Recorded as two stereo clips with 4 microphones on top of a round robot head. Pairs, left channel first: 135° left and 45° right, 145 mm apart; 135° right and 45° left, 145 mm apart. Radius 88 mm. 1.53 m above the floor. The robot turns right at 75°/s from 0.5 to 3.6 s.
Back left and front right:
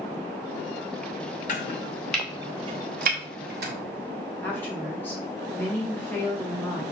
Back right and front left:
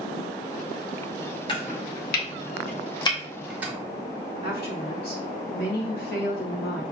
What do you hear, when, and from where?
1.5 s chopping: 170° left, 1.6 m; by 3.7 s 35° right, 1.6 m
4.4 s a woman speaking: 150° right, 3 m